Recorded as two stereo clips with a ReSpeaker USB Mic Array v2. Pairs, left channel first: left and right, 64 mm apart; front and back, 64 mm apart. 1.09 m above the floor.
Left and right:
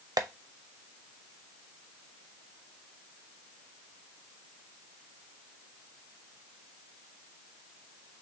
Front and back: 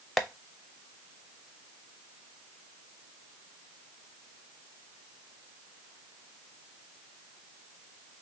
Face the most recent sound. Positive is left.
turn(degrees=-90)